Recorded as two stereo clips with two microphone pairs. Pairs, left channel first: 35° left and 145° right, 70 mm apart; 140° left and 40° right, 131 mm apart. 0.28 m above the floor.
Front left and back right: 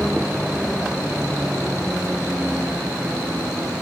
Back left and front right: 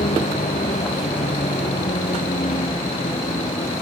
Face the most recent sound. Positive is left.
turn(degrees=150)